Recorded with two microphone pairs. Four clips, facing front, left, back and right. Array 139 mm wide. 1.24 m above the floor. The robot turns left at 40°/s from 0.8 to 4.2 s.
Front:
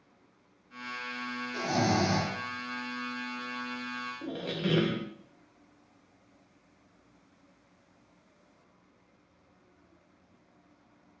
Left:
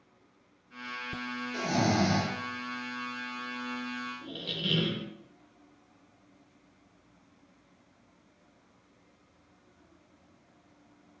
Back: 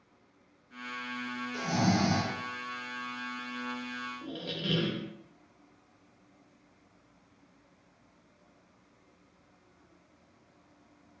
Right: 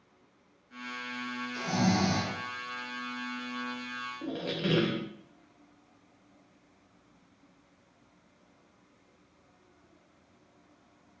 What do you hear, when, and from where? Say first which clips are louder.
1.5 s snoring: left 1 dB, front 1 dB; 65° left, 3.5 m; by 2.3 s 35° left, 3.5 m
4.2 s a squeak: right 6 dB, front 7 dB; 60° right, 0.7 m